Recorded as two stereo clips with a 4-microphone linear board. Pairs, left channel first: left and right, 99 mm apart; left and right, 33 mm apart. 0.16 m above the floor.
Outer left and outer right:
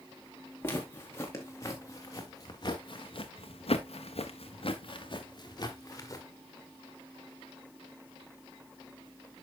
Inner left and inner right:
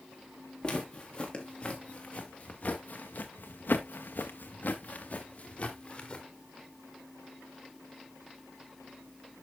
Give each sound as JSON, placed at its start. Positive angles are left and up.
{"t": 0.6, "sound": "footsteps", "side_deg": 25, "distance_m": 3.5}